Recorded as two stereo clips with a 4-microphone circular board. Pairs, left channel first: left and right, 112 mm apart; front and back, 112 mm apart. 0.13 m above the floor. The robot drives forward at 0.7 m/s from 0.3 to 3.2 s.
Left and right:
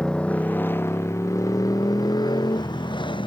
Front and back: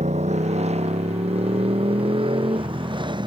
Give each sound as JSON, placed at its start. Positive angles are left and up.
{"t": 0.0, "sound": "a motorcycle", "azimuth_deg": 175}